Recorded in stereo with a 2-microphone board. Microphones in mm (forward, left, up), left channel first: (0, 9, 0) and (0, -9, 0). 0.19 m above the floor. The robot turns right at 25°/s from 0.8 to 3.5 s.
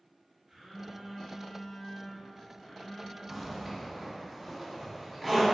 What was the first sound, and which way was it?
A phone buzzing, 35° right.